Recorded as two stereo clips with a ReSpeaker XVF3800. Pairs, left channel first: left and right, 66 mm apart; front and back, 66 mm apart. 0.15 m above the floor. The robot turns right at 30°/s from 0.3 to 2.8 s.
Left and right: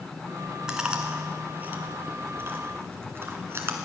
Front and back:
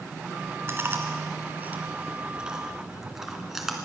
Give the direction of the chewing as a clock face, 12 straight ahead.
5 o'clock.